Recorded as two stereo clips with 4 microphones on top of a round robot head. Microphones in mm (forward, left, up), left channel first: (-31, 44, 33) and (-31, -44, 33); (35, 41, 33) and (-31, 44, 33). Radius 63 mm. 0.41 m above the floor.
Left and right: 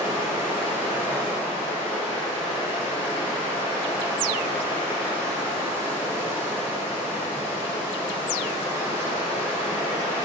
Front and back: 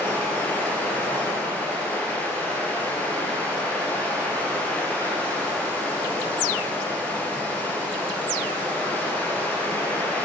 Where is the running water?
65° left, 3 m.